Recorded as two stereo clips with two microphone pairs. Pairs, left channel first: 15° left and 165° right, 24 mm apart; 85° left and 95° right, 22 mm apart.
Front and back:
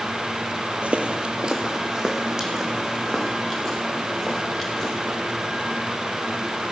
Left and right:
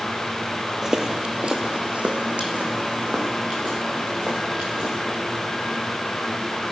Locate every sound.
0.8 s footsteps: 155° right, 1.0 m; by 5.0 s 85° right, 5 m